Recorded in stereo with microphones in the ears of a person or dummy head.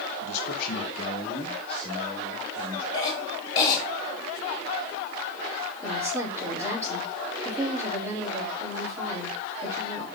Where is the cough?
25° left (ahead or behind), 3.5 m.